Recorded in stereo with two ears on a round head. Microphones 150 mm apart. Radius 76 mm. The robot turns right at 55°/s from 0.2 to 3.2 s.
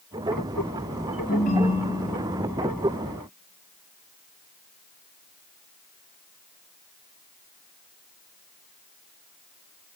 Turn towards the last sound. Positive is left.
turn(degrees=-140)